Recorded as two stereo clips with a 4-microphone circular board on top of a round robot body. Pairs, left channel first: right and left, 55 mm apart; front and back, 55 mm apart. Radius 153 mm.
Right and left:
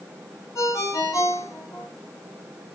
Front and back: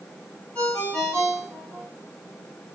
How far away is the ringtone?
About 3.5 m.